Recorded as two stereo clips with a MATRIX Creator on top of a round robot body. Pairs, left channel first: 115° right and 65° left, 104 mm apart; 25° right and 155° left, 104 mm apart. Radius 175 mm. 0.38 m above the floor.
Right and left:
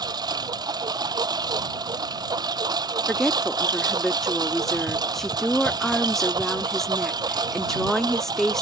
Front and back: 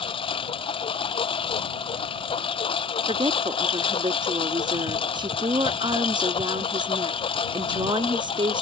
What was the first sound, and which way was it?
A lawn mower, 15° left.